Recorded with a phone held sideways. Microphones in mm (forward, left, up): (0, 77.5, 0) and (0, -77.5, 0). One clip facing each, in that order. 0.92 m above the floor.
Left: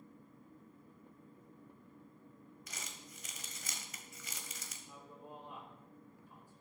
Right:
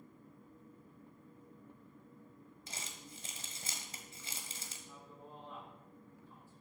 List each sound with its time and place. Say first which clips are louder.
2.7 s crumpling: right 2 dB; 30° right (ahead or behind), 1.7 m
4.9 s a man speaking: left 3 dB; 15° left (ahead or behind), 4.5 m